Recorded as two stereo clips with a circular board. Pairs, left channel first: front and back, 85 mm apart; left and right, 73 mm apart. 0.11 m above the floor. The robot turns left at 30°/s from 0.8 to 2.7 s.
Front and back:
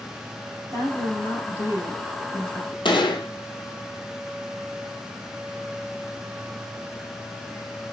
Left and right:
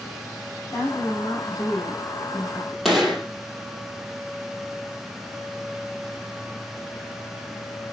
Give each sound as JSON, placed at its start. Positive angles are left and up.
{"t": 0.7, "sound": "a woman speaking", "azimuth_deg": 145, "distance_m": 4.5}
{"t": 2.9, "sound": "a gunshot", "azimuth_deg": 0, "distance_m": 1.6}